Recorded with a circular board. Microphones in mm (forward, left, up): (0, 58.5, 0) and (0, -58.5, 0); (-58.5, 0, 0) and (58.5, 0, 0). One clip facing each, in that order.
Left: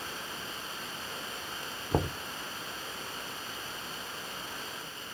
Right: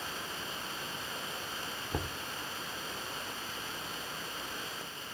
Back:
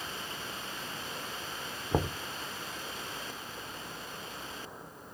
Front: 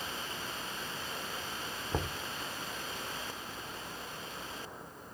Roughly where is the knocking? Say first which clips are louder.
Left 9 dB, back 6 dB; behind left.